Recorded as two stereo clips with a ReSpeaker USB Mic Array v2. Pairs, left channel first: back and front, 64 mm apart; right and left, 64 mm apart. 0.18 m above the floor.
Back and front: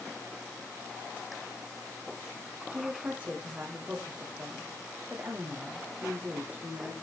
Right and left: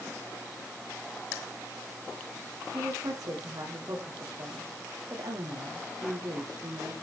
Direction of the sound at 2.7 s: 70° left.